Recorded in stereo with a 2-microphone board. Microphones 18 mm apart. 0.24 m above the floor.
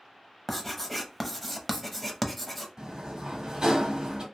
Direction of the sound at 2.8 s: 40° right (ahead or behind).